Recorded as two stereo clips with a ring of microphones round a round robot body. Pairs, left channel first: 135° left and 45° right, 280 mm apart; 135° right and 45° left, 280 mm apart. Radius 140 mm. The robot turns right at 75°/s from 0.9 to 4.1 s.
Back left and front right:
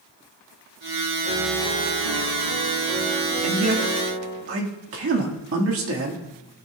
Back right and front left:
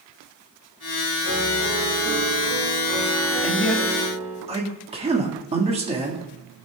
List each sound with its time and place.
1.2 s a piano: 100° right, 2.5 m; by 4.4 s 115° left, 2.5 m
3.4 s a man speaking: 70° right, 1.6 m; by 6.2 s 20° right, 1.6 m